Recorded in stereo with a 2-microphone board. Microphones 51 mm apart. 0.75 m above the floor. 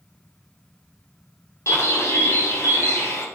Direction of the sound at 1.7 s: 65° left (ahead or behind).